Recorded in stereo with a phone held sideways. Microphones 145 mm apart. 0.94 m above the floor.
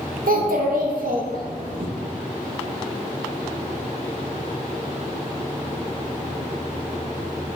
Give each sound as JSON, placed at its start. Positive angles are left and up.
{"t": 0.3, "sound": "a child speaking", "side_deg": -85, "distance_m": 0.6}